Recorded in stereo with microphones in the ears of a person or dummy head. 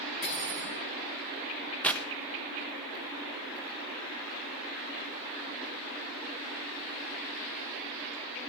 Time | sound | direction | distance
0.2 | cutlery clinking | 60° left (ahead or behind) | 9 m
1.8 | tearing paper | 5° left (ahead or behind) | 0.5 m